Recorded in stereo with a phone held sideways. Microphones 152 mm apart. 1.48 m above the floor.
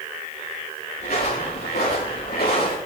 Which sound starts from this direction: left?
Footsteps, at 1.0 s.